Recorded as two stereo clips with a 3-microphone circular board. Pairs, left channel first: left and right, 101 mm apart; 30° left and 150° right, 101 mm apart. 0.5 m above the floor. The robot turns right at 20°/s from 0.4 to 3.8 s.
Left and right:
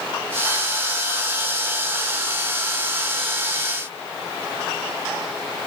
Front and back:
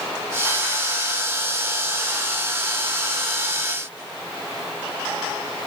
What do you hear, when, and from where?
Only background noise.